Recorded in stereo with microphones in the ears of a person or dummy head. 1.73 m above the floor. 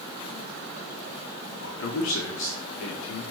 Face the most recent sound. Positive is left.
turn(degrees=70)  # may be behind; listen again after turning